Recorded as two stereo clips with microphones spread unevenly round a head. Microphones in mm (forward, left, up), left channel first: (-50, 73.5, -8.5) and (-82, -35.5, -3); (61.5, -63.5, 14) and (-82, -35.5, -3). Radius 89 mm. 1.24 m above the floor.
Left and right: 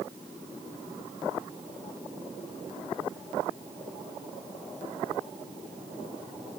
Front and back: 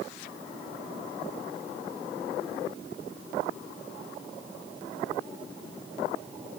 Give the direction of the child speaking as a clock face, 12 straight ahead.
No child speaking in this recording.